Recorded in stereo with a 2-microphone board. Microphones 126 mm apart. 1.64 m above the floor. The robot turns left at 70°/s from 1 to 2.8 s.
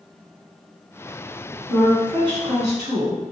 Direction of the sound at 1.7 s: Straight ahead.